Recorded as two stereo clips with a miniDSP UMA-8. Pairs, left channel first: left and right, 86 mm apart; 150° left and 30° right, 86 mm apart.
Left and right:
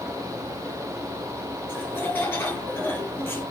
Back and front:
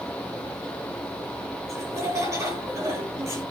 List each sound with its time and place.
1.7 s laughter: 25° left, 9 m